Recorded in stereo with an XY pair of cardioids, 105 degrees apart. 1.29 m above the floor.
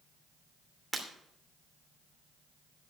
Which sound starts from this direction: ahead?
Breaking glass, at 0.9 s.